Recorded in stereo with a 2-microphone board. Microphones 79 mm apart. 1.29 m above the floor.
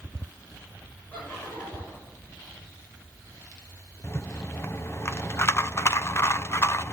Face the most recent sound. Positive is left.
turn(degrees=35)  # may be behind; listen again after turning